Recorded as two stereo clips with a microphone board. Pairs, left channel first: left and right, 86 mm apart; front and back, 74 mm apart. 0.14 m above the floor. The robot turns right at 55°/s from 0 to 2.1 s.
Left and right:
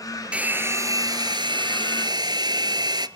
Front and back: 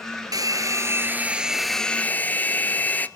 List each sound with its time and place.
0.3 s a hair dryer: 165° right, 1.2 m; by 3.1 s 65° right, 1.2 m